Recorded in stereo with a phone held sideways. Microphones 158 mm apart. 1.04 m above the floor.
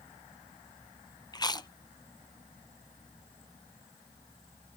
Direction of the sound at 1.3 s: 25° left (ahead or behind).